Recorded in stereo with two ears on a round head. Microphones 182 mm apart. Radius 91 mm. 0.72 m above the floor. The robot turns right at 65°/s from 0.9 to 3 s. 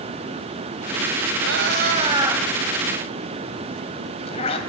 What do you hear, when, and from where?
1.4 s a cat meowing: 75° right (ahead or behind), 2.5 m; by 4.6 s 30° left (ahead or behind), 2.5 m